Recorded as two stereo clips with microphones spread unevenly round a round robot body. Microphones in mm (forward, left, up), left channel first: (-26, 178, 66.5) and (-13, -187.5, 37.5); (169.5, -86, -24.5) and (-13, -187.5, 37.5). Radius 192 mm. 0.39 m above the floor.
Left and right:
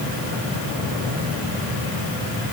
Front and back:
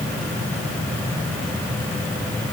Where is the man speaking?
No man speaking in this recording.